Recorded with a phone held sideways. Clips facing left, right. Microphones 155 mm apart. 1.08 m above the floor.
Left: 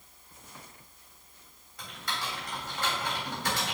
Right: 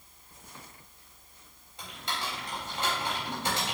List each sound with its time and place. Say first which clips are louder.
1.8 s typing on a keyboard: right 1 dB; 25° right (ahead or behind), 3.5 m